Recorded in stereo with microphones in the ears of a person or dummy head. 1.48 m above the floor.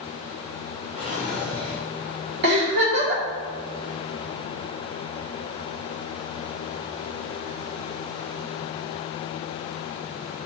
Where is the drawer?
5° left (ahead or behind), 2.0 m.